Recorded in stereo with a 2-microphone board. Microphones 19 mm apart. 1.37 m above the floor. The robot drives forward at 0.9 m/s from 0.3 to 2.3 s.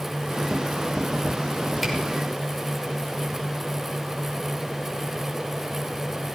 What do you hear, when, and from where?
1.8 s a camera shutter: centre (ahead or behind), 4 m